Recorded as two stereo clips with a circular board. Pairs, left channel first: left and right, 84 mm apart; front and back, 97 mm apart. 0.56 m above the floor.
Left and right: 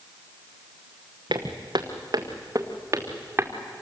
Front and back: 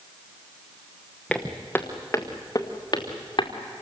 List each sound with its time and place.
1.3 s footsteps: 85° right, 2 m; by 3.5 s 30° right, 2.5 m